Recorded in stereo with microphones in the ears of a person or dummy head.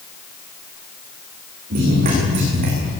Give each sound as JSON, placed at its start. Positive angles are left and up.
{"t": 1.7, "sound": "running footsteps", "side_deg": -50, "distance_m": 8.5}